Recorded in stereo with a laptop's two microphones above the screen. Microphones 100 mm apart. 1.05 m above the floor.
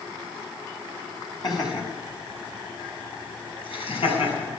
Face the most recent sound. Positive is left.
turn(degrees=70)  # may be behind; listen again after turning